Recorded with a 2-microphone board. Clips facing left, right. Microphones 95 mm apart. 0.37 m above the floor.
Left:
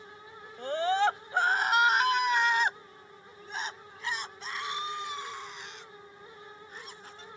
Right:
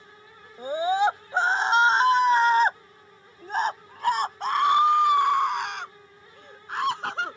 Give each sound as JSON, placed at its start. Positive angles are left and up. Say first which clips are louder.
{"t": 0.6, "sound": "a scream", "louder": "right 4 dB", "side_deg": -10}